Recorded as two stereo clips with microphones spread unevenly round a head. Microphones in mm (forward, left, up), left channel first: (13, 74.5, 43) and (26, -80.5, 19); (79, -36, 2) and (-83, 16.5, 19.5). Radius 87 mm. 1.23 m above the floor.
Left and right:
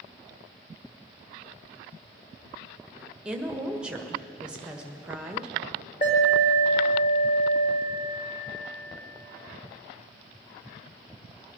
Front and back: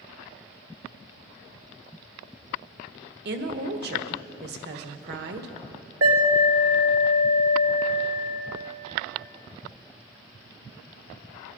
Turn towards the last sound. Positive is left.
turn(degrees=150)